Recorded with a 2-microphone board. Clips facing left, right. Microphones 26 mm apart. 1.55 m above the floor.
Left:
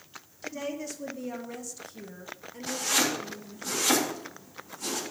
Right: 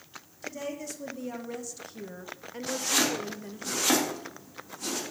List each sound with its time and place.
0.4 s a woman speaking: 15° left (ahead or behind), 1.8 m; by 3.7 s 65° right (ahead or behind), 1.1 m
2.7 s chopping: 5° right (ahead or behind), 3 m